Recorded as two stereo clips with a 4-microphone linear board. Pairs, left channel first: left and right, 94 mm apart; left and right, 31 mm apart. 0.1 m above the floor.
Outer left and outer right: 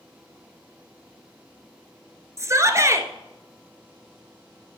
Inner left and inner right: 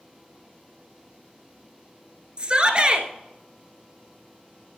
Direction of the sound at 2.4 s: 30° right (ahead or behind).